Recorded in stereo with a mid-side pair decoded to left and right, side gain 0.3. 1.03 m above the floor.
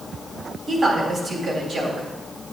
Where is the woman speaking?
60° right, 3.5 m.